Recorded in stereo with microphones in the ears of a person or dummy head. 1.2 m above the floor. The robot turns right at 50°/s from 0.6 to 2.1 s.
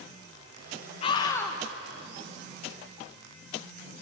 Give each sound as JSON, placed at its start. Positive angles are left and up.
{"t": 1.0, "sound": "a scream", "side_deg": 35, "distance_m": 1.0}